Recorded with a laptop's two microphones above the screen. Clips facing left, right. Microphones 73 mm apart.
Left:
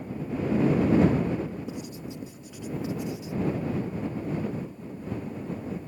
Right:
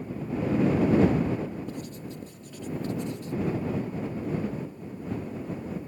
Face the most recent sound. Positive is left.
turn(degrees=10)  # may be behind; listen again after turning